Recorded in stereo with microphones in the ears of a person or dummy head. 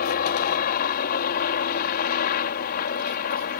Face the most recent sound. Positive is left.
turn(degrees=50)  # may be behind; listen again after turning